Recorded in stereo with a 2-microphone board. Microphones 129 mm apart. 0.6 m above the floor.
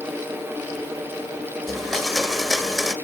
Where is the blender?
Centre (ahead or behind), 1.4 m.